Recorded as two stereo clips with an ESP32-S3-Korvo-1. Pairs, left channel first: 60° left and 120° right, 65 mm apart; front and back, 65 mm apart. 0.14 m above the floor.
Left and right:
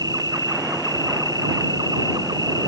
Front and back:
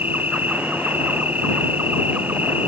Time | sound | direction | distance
0.0 | an insect | 115° right | ?